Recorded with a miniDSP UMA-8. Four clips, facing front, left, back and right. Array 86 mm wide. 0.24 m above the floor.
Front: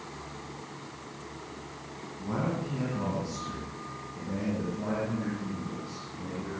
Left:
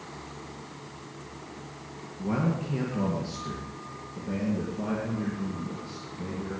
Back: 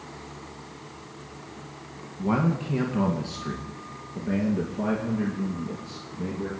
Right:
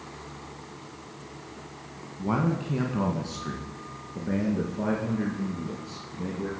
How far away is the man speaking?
About 1.7 m.